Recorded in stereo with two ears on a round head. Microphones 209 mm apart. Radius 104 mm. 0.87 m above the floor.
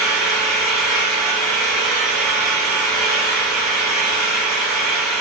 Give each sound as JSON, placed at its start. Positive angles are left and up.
{"t": 0.0, "sound": "an engine running", "side_deg": 0, "distance_m": 1.5}